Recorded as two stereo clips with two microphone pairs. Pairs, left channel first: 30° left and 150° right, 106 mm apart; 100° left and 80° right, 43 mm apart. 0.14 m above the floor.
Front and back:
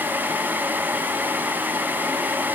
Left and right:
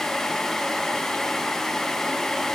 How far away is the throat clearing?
I don't hear throat clearing.